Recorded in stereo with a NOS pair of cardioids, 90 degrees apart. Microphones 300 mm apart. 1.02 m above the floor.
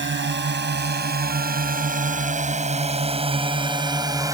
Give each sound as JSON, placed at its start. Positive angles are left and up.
{"t": 0.0, "sound": "a drone", "azimuth_deg": -35}